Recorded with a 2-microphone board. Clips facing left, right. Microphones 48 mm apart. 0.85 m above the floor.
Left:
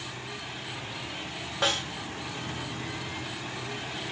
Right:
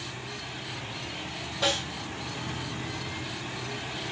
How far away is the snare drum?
About 2 m.